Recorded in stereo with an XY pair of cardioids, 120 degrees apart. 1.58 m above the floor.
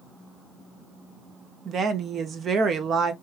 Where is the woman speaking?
45° right, 0.5 m.